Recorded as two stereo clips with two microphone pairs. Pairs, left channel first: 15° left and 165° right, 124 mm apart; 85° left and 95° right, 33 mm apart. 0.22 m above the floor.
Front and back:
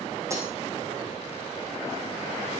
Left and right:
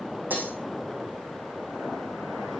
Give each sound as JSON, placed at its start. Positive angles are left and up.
{"t": 0.3, "sound": "breaking glass", "azimuth_deg": -95, "distance_m": 6.0}